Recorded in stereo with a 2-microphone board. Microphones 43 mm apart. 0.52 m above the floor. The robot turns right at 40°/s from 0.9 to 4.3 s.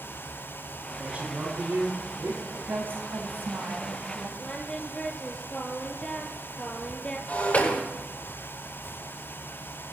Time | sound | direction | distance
0.9 | a man speaking | 155° right | 7.5 m
2.5 | a woman speaking | 140° right | 3.5 m
4.4 | singing | 20° left (ahead or behind) | 2 m
7.3 | breaking glass | 40° left (ahead or behind) | 9 m